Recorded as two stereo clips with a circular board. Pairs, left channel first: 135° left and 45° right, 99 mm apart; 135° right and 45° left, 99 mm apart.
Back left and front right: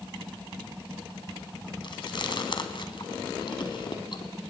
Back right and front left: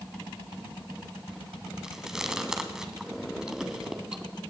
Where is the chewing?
125° left, 1.4 m.